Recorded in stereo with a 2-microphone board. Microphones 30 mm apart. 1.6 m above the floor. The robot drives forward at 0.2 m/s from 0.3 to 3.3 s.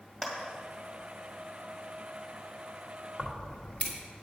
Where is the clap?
25° left (ahead or behind), 2.0 m.